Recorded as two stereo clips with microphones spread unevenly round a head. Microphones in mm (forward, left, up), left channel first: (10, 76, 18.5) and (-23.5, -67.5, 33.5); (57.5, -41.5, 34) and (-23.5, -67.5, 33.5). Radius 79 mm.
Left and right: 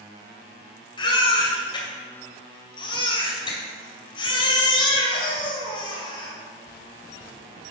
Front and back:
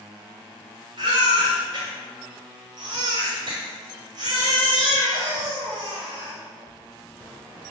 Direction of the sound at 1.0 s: 140° left.